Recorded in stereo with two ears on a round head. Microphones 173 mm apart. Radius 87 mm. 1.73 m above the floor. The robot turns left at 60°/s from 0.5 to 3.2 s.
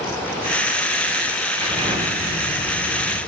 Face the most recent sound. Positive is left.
turn(degrees=55)